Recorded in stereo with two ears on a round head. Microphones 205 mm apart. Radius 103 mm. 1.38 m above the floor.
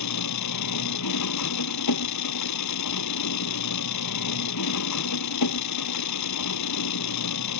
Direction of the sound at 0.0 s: 80° left.